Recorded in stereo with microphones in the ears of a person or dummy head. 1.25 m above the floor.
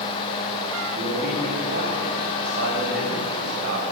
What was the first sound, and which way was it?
A man speaking, 55° right (ahead or behind).